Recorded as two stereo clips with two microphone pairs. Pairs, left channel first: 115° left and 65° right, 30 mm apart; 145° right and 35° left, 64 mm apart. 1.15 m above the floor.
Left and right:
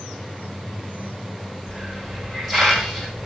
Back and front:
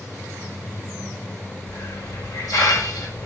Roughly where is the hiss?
Behind right.